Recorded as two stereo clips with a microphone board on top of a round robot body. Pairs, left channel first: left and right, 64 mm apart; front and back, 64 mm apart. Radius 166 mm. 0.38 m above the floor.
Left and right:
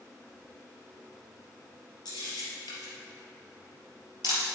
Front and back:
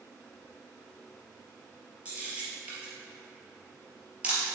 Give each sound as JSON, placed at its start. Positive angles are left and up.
{"t": 2.0, "sound": "a camera shutter", "azimuth_deg": 105, "distance_m": 3.0}